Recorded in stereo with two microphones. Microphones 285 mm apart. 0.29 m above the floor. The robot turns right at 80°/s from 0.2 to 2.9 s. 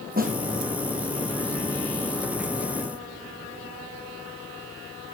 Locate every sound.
0.2 s a snare drum: 30° right (ahead or behind), 1.8 m; by 0.4 s 15° right (ahead or behind), 1.8 m